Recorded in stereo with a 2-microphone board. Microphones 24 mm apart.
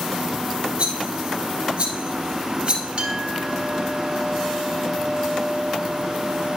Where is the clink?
45° right (ahead or behind), 1.8 m.